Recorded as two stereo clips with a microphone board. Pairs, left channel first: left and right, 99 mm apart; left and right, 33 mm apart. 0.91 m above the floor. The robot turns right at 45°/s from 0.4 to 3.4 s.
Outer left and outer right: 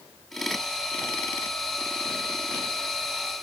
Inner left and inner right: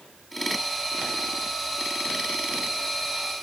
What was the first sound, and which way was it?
Only background noise.